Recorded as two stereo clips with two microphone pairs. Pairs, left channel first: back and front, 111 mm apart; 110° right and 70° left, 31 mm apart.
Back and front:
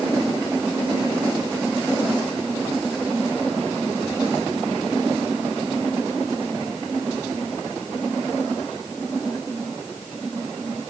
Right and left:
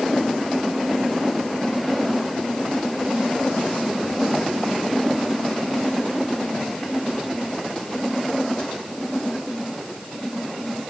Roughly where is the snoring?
No snoring in this recording.